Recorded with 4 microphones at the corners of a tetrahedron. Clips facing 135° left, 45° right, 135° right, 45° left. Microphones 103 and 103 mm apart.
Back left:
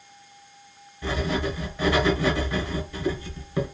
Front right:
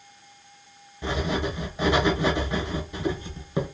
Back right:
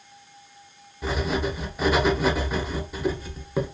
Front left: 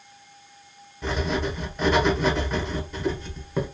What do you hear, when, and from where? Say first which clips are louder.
1.0 s writing: even, even; 60° right, 0.7 m